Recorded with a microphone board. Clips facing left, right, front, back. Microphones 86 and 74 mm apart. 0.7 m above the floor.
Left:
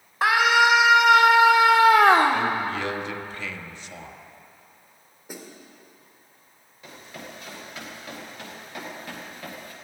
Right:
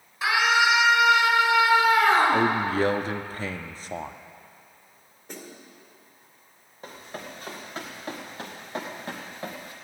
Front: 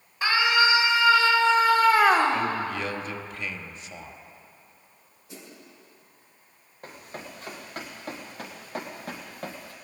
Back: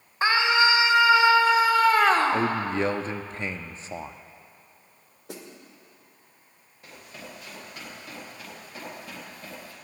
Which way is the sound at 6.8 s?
40° right.